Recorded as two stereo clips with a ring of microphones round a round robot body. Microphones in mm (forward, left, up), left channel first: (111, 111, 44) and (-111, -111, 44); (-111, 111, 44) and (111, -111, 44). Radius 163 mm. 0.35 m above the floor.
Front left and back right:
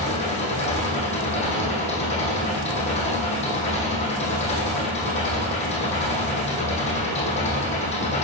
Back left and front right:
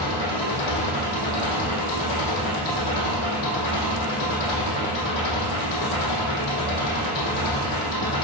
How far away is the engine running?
About 3.5 m.